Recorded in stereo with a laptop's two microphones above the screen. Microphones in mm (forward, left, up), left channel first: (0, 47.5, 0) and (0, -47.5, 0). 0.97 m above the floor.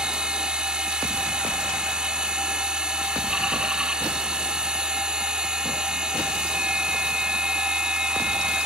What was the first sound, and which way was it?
A machine running, 10° right (ahead or behind).